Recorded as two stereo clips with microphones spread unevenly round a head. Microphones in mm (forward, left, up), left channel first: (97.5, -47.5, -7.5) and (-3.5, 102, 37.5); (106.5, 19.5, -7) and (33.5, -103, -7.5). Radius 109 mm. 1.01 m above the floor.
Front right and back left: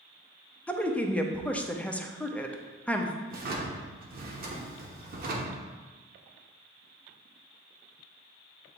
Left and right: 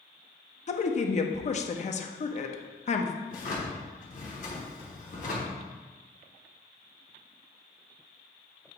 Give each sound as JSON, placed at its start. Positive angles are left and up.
{"t": 0.7, "sound": "a woman speaking", "azimuth_deg": 20, "distance_m": 0.8}
{"t": 3.3, "sound": "a drawer", "azimuth_deg": 100, "distance_m": 1.0}